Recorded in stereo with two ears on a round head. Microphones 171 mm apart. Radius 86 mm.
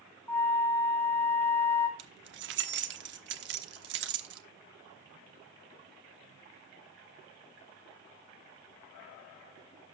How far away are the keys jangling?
About 1.1 m.